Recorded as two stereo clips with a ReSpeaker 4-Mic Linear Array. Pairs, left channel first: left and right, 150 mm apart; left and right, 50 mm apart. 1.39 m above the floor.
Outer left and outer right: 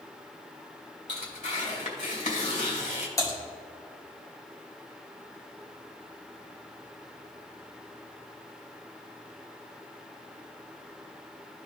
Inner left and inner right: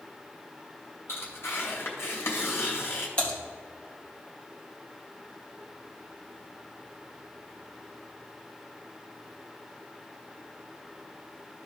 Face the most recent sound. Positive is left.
turn(degrees=20)  # may be behind; listen again after turning